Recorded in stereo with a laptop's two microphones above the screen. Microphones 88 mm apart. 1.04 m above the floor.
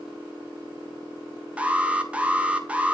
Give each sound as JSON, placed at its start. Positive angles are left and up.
{"t": 1.6, "sound": "an alarm", "side_deg": -15, "distance_m": 2.0}